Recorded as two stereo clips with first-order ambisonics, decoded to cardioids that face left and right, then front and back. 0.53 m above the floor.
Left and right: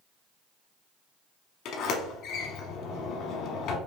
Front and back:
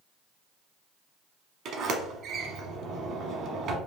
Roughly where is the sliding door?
Behind left.